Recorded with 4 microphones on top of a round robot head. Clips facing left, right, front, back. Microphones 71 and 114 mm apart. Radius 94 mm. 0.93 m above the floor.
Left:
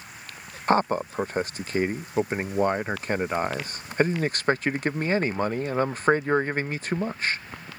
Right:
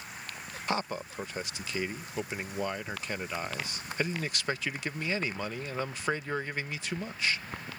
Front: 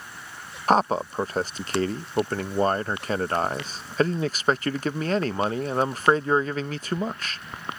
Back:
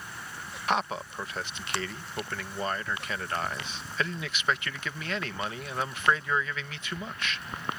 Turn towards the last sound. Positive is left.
turn(degrees=45)